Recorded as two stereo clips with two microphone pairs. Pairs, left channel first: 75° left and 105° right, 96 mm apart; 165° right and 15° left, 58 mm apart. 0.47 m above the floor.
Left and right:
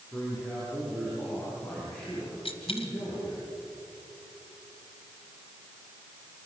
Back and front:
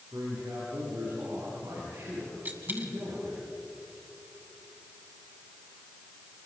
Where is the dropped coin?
70° left, 2 m.